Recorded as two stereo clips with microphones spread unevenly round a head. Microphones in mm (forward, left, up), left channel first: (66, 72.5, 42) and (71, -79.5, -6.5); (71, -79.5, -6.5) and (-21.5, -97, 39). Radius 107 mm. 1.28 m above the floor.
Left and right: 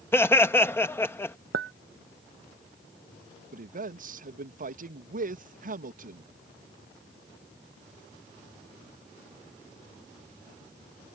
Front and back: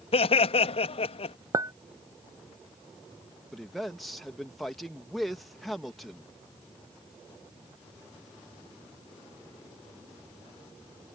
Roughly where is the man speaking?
Right.